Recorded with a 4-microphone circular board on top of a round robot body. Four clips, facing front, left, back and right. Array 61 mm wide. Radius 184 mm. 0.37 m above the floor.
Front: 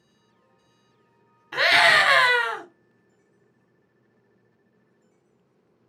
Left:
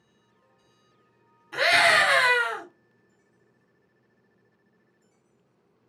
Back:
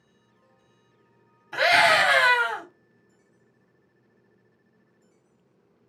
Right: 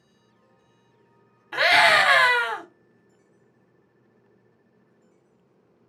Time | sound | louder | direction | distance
1.5 | a scream | right 2 dB, front 1 dB | 35° right | 2 m